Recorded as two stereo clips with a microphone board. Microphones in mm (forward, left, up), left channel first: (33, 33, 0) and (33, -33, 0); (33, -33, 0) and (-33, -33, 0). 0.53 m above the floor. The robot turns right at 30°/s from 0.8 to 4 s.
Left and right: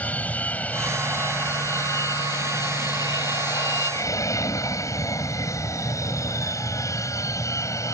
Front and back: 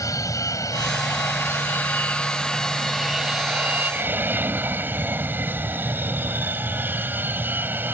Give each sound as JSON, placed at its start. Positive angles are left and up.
{"t": 0.0, "sound": "an aircraft", "azimuth_deg": 25}